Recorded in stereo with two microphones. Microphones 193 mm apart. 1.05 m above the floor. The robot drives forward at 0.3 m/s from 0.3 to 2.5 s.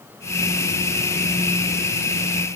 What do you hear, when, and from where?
Only background noise.